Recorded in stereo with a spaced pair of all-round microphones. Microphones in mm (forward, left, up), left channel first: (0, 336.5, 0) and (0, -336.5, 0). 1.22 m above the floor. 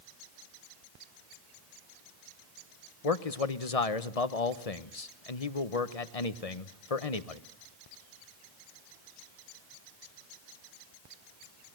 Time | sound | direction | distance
3.0 | a man speaking | 60° left (ahead or behind) | 1.1 m